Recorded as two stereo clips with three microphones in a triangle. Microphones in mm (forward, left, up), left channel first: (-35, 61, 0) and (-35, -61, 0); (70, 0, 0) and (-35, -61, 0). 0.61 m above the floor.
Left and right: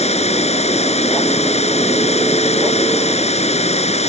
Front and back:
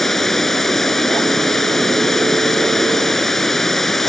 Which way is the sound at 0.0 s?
115° left.